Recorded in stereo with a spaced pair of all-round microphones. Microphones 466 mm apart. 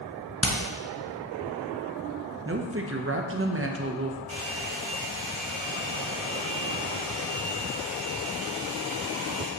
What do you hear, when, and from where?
0.4 s hammering: 30° left (ahead or behind), 1.0 m
2.5 s a woman speaking: 30° right (ahead or behind), 0.8 m
4.3 s a hair dryer: 90° right, 2.5 m